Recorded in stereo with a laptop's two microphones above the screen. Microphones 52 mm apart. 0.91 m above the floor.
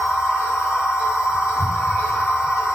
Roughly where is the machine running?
Left.